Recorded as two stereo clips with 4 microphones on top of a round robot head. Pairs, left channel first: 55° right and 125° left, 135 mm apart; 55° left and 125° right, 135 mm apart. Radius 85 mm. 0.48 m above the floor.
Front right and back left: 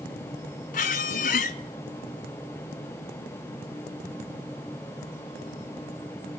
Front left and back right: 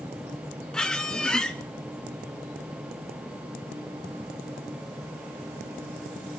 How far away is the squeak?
About 0.5 m.